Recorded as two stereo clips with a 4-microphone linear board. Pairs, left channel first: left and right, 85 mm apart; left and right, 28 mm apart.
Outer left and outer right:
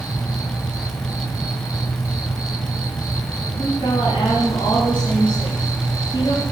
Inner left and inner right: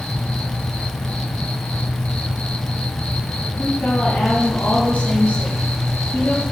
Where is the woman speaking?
75° left (ahead or behind), 6.5 m.